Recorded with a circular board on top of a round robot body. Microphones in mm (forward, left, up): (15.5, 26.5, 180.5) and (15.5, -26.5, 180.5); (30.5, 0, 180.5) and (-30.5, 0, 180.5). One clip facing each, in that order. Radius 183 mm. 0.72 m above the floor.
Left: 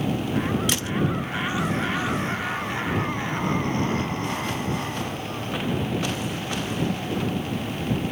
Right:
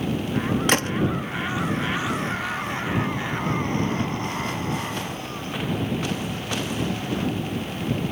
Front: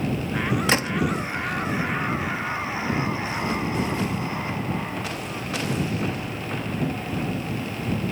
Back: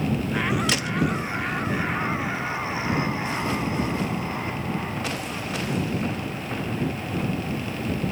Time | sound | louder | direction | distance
0.7 | a gunshot | right 5 dB, front 3 dB | 50° right | ?